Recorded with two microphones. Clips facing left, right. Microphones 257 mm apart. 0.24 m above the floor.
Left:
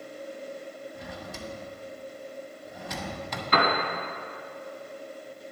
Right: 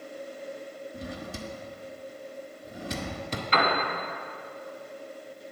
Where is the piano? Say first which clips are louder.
Left 2 dB; 50° left (ahead or behind), 1.4 m.